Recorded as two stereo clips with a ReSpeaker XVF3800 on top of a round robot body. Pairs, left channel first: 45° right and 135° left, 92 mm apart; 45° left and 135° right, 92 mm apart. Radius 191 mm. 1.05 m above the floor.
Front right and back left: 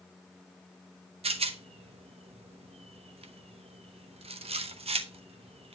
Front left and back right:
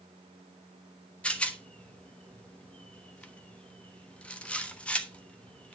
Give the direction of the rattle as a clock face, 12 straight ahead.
8 o'clock.